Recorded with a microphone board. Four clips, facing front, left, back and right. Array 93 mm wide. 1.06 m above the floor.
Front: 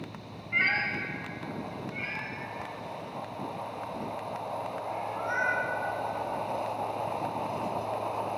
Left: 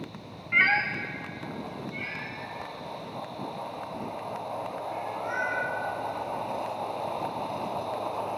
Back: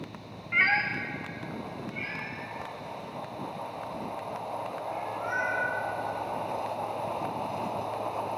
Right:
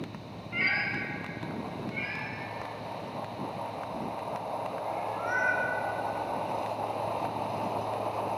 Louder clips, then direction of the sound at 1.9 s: Right 1 dB, even; 95° right.